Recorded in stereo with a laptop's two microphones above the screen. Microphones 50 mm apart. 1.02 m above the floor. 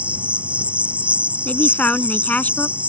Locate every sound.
0.0 s an insect: 25° right (ahead or behind)
1.4 s a man speaking: 30° left (ahead or behind)